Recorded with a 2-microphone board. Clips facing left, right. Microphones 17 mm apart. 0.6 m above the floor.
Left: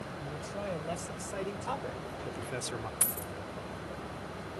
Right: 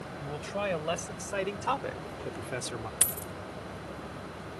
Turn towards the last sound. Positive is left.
turn(degrees=-50)  # may be behind; listen again after turning